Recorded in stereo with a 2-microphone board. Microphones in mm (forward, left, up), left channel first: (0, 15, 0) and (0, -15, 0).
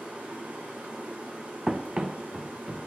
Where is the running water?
85° right, 5 m.